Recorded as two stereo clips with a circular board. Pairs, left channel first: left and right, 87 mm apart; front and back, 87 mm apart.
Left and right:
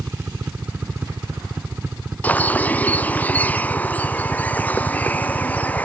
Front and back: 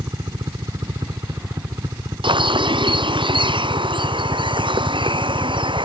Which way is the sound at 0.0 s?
150° right.